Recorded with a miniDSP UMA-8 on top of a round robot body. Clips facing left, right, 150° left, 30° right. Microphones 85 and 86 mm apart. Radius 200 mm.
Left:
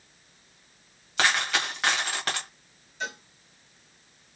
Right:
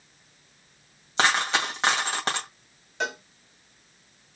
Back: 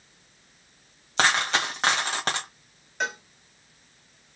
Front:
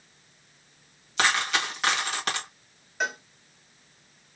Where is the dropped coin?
155° right, 2.0 m.